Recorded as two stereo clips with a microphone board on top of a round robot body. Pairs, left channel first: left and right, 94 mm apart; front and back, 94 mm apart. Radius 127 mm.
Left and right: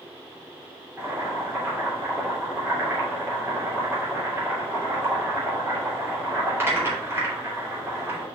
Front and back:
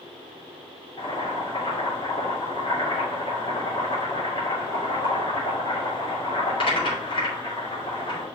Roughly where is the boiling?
Ahead right.